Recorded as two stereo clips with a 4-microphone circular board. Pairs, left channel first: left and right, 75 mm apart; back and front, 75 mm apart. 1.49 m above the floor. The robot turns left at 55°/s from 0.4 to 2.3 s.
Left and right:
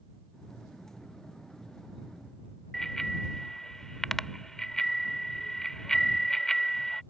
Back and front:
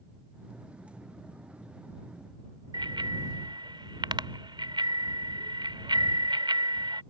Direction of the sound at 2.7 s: 5° left.